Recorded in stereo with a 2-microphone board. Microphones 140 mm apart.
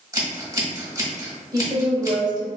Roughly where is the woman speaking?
Right.